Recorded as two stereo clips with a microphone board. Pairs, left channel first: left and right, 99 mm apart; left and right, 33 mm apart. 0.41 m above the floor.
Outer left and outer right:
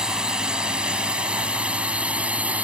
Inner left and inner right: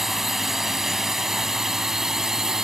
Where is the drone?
5° right (ahead or behind); by 2.6 s 15° right (ahead or behind).